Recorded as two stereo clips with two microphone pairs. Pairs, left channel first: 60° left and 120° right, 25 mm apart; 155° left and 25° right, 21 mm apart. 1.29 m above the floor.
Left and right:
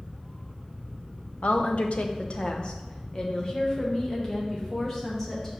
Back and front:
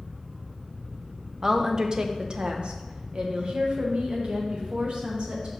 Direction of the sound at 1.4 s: 50° left.